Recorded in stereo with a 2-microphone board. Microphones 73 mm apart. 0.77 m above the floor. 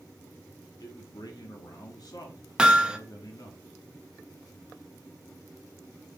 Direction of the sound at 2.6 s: 10° right (ahead or behind).